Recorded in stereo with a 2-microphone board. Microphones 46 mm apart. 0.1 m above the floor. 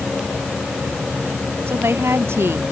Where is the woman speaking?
65° right (ahead or behind).